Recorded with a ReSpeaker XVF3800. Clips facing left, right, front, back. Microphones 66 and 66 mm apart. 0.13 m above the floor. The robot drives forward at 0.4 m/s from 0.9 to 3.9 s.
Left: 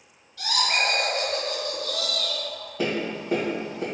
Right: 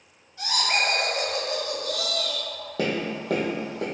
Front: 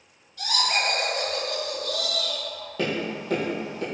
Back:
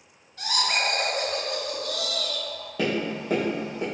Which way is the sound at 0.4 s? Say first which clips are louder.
Even, front 1 dB; 135° right.